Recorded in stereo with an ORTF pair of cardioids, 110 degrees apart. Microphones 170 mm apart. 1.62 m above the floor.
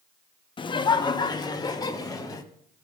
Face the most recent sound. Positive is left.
turn(degrees=20)